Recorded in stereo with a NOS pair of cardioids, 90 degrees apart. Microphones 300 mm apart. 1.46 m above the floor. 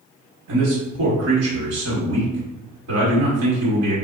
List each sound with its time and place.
0.5 s a man speaking: 55° right, 1.2 m